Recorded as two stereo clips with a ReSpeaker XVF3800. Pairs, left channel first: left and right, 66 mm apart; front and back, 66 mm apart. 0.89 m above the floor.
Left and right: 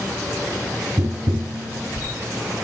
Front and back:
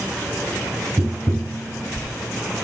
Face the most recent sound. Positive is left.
turn(degrees=-110)